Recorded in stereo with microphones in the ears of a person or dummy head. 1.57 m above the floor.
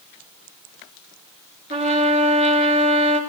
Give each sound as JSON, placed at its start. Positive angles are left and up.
{"t": 1.7, "sound": "a trumpet", "side_deg": -35, "distance_m": 3.5}